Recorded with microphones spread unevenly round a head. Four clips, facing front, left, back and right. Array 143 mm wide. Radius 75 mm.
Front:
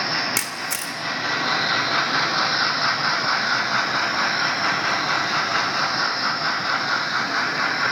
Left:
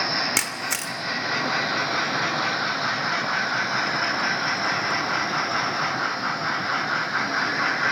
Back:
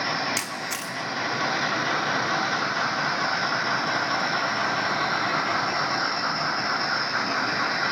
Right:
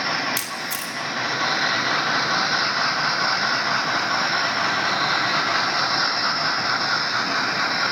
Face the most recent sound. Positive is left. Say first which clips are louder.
# left 1 dB, front 2 dB
turn(degrees=60)